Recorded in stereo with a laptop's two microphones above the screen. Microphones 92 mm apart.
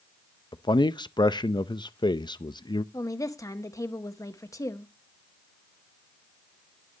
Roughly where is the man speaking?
Left.